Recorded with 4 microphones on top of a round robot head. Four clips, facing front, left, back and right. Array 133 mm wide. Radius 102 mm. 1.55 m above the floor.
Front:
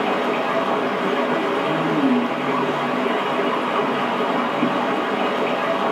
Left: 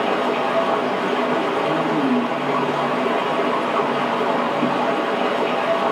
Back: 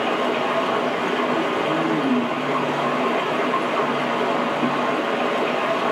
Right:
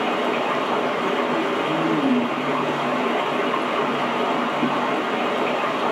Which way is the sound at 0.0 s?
20° left.